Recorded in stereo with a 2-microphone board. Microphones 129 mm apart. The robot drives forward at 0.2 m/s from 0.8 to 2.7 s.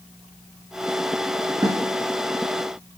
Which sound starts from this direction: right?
A snare drum, at 1.6 s.